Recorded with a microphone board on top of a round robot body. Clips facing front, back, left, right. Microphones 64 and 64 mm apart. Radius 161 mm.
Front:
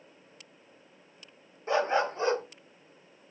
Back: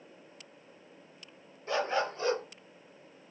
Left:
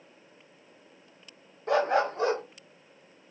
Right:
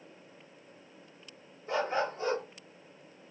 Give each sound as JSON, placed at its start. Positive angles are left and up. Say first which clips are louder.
{"t": 1.7, "sound": "a dog barking", "louder": "front 4 dB, left 6 dB", "azimuth_deg": 65, "distance_m": 0.7}